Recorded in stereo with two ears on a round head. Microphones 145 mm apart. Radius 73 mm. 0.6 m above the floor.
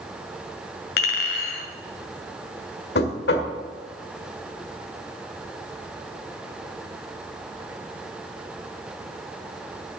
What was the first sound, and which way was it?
A clink, 70° left (ahead or behind).